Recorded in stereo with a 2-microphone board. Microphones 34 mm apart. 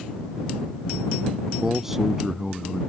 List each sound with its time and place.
1.6 s a man speaking: 10° right (ahead or behind)